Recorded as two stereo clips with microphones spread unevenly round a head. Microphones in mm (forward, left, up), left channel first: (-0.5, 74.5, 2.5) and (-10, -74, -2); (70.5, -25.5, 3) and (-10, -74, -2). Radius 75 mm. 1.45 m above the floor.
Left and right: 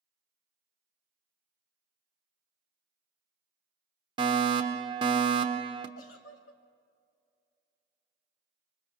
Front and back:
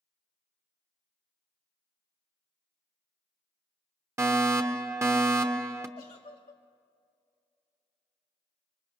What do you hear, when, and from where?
4.2 s a fire alarm: 115° right, 1.1 m
6.0 s a giggle: 85° left, 1.6 m